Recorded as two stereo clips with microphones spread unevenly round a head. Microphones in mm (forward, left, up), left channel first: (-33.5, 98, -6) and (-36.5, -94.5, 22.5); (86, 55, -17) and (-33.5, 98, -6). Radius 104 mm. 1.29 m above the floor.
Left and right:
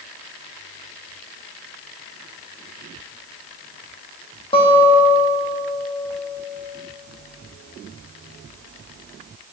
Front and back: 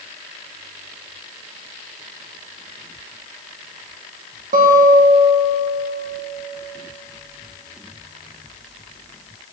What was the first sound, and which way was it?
A guitar, 150° left.